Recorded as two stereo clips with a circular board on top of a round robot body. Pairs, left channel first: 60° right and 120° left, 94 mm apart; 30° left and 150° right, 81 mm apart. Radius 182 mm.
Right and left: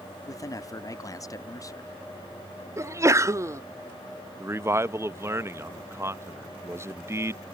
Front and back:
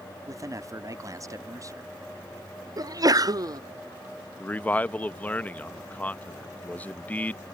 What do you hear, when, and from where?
0.3 s a man speaking: 110° right
2.8 s a sneeze: 175° left
4.4 s a man speaking: 85° left